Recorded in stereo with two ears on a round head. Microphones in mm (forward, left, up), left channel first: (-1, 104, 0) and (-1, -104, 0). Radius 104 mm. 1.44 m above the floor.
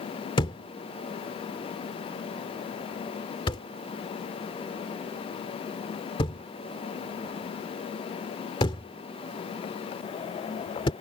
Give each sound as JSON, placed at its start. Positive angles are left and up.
{"t": 0.4, "sound": "a thud", "side_deg": 20}